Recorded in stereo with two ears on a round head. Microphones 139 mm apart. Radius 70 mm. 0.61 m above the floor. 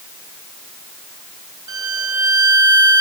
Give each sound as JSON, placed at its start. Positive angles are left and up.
{"t": 1.7, "sound": "a violin", "side_deg": -25, "distance_m": 1.4}